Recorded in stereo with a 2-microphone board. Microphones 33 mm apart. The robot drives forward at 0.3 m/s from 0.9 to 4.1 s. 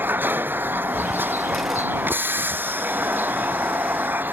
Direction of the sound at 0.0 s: 80° right.